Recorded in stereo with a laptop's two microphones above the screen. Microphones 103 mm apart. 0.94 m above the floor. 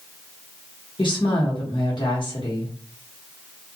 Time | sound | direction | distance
1.0 | a woman speaking | 50° left (ahead or behind) | 1.2 m